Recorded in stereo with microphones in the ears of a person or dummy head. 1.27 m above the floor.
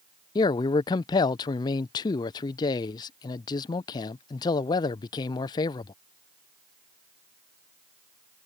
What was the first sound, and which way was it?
A man speaking, 20° left (ahead or behind).